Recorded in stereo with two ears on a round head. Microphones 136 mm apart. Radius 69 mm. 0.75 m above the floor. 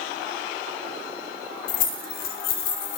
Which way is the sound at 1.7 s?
50° left (ahead or behind).